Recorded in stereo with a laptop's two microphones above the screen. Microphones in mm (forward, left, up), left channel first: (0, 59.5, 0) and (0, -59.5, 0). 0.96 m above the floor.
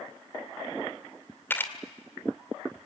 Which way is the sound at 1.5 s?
15° left (ahead or behind).